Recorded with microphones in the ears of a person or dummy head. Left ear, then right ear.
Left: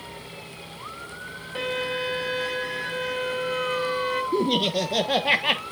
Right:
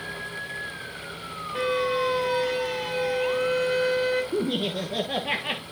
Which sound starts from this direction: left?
Laughter, at 4.3 s.